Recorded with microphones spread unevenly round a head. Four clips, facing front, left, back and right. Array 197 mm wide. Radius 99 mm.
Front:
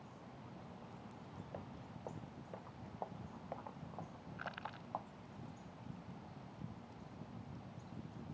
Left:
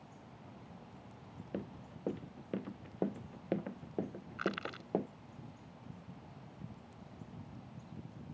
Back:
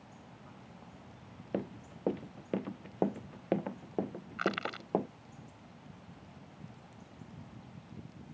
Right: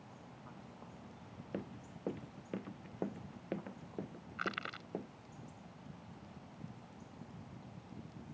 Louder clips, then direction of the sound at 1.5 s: Left 1 dB, back 16 dB; straight behind.